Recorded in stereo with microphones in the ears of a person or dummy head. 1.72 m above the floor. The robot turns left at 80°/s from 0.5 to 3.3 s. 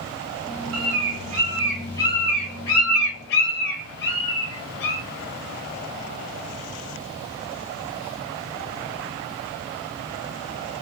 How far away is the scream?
No scream in this recording.